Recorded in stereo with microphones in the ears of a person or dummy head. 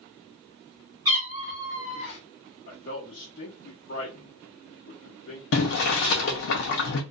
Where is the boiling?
65° left (ahead or behind), 0.7 m.